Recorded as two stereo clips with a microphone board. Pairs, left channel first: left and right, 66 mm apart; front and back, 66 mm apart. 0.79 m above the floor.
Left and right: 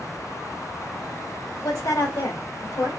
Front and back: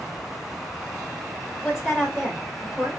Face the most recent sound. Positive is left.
turn(degrees=95)